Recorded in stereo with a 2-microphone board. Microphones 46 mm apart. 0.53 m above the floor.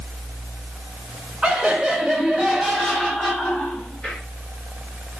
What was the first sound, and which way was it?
Laughter, 20° right (ahead or behind).